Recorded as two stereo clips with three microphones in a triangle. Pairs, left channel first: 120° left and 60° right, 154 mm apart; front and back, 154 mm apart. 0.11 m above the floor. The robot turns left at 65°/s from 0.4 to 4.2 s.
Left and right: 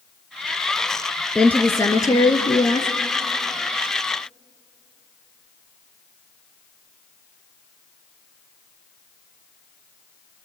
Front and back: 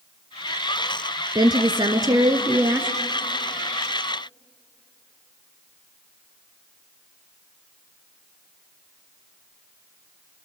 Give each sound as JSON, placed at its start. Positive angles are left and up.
{"t": 1.4, "sound": "a woman speaking", "azimuth_deg": -160, "distance_m": 1.2}